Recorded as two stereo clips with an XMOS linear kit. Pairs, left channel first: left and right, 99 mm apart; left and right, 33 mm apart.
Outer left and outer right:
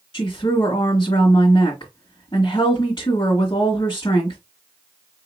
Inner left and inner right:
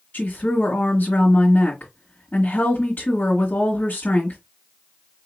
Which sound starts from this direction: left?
A woman speaking, at 0.1 s.